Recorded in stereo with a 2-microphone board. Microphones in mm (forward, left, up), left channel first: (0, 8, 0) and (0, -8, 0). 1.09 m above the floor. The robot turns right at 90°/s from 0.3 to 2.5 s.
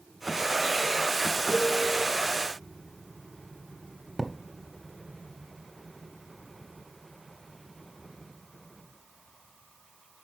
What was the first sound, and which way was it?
A piano, 150° left.